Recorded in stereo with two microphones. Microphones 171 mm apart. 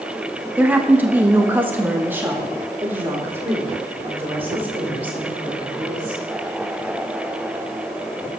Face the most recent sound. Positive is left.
turn(degrees=-10)  # may be behind; listen again after turning